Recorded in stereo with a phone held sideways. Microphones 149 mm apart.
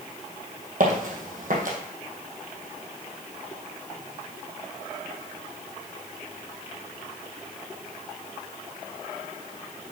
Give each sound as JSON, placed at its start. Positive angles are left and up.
{"t": 0.8, "sound": "footsteps", "side_deg": -65, "distance_m": 2.5}